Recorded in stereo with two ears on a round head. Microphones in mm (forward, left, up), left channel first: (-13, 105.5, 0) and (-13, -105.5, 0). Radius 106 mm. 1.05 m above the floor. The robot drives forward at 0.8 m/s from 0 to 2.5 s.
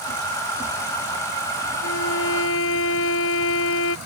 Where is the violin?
55° left (ahead or behind); by 4.0 s 60° left (ahead or behind).